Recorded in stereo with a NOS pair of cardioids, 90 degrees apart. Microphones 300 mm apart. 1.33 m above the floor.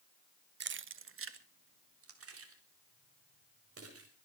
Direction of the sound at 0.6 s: 35° right.